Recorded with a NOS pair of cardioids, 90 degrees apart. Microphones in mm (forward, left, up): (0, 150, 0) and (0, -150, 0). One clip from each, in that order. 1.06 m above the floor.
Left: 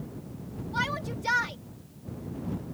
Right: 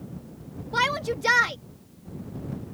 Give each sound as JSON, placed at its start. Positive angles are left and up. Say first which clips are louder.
{"t": 0.7, "sound": "a shout", "louder": "right 7 dB", "azimuth_deg": -60}